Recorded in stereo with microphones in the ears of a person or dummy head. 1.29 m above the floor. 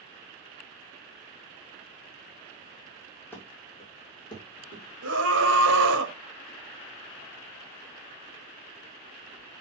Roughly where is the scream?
Right.